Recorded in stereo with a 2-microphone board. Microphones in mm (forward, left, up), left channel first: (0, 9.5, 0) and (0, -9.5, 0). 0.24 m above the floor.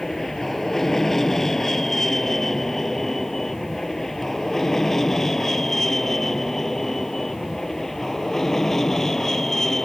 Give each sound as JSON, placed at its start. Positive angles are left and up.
{"t": 0.0, "sound": "an aircraft", "side_deg": 20}